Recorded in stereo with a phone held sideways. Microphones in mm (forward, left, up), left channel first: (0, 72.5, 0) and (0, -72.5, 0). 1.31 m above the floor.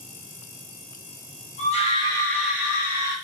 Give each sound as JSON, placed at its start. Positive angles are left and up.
{"t": 1.6, "sound": "a scream", "side_deg": 50, "distance_m": 1.2}